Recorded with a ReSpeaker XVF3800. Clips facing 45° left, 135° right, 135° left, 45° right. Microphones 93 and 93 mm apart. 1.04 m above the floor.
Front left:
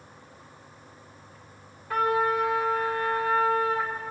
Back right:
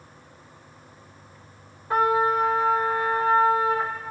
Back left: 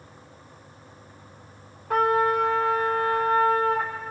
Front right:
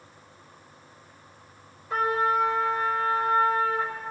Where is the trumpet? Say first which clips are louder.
Back right 3 dB, back left 3 dB; 160° left, 3.5 m.